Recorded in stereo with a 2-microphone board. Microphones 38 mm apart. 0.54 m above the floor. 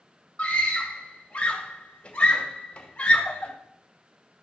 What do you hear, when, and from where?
0.4 s a scream: 35° left (ahead or behind), 1.9 m